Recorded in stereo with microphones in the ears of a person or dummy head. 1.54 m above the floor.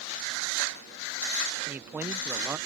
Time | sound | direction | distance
1.7 | a man speaking | 10° right (ahead or behind) | ?